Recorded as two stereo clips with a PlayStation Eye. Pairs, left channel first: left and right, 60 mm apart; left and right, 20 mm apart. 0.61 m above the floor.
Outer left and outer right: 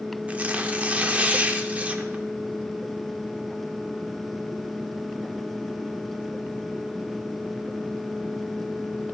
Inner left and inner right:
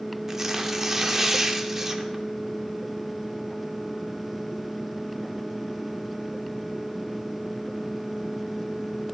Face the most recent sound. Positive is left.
turn(degrees=-25)  # may be behind; listen again after turning